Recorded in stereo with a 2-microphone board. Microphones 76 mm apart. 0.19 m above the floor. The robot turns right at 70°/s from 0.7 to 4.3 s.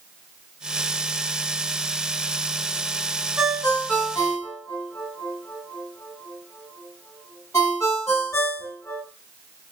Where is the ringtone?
10° right (ahead or behind), 1.4 m; by 9.0 s 35° left (ahead or behind), 1.4 m.